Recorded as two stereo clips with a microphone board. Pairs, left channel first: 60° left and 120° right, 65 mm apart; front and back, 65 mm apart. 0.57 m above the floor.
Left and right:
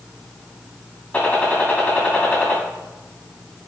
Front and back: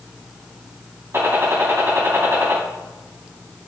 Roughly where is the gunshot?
Behind left.